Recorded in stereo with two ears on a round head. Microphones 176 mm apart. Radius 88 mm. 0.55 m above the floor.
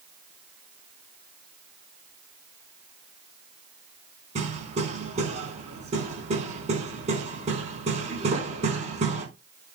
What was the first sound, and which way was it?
Hammering, 35° right (ahead or behind).